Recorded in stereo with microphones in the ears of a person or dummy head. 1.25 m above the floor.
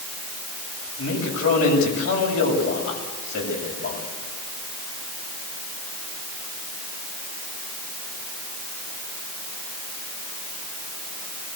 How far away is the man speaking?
About 8.5 m.